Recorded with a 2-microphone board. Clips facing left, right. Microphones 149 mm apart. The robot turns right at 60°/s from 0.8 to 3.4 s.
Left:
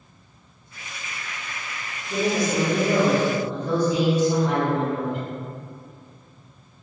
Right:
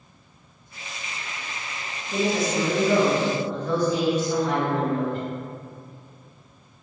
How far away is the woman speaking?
About 1.6 m.